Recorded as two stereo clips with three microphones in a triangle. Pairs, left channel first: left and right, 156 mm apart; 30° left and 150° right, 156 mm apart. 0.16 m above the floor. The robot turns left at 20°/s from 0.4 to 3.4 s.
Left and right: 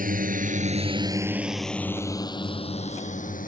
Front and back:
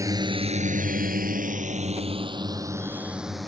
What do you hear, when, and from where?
0.0 s a drone: 80° right; by 3.5 s 120° left